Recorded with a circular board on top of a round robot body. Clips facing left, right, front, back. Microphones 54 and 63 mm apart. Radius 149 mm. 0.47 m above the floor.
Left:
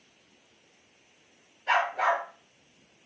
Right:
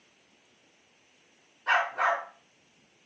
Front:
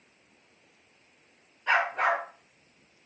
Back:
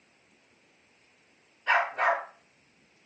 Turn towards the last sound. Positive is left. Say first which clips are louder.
# even, even
turn(degrees=-85)